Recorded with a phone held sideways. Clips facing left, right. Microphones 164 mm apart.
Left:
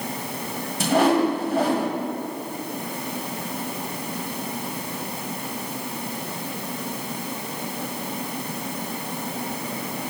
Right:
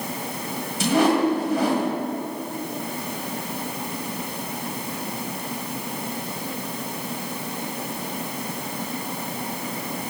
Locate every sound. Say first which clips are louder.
0.8 s a whoosh: even; 55° left (ahead or behind), 1.6 m